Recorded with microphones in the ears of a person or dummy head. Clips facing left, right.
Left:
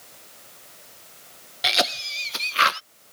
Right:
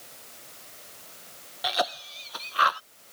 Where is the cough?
35° left (ahead or behind).